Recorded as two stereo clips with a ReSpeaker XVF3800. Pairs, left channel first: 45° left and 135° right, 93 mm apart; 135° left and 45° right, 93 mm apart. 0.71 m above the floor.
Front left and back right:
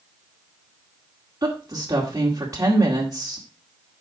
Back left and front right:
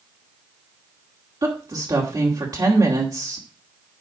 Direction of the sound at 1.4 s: 85° right.